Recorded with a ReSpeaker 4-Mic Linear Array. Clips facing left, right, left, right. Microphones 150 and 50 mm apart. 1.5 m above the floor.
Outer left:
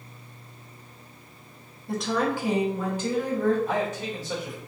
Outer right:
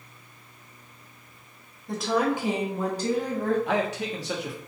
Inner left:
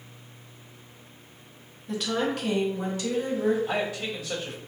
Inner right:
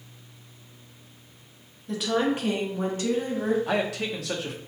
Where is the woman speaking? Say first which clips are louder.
Outer right 1 dB, inner right 3 dB; 5° left (ahead or behind), 0.6 m; by 3.6 s 45° right (ahead or behind), 1.4 m.